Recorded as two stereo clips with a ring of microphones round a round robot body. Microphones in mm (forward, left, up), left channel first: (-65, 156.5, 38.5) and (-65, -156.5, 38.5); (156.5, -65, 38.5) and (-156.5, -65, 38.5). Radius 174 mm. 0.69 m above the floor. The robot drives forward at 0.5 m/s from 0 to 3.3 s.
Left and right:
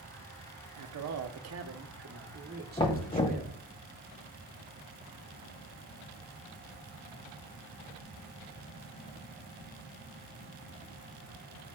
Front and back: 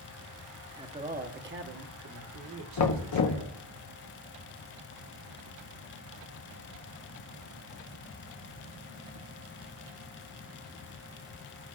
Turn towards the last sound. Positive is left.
turn(degrees=25)